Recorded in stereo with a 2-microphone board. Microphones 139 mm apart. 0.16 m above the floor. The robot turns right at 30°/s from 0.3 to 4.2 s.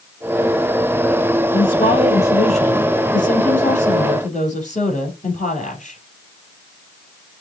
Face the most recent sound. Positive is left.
turn(degrees=115)